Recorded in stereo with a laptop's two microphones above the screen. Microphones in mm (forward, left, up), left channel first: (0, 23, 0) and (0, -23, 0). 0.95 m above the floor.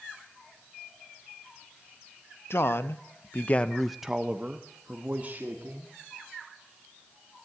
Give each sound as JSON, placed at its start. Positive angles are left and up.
{"t": 2.5, "sound": "a man speaking", "side_deg": 60, "distance_m": 1.2}